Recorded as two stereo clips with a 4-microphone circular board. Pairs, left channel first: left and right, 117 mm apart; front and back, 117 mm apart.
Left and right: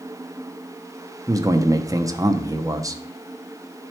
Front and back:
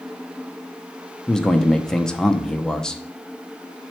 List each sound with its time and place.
1.3 s a man speaking: 80° right, 0.7 m